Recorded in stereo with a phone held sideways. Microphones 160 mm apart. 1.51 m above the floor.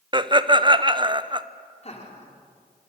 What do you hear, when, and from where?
0.1 s laughter: 30° right (ahead or behind), 0.9 m
1.8 s laughter: 45° left (ahead or behind), 4 m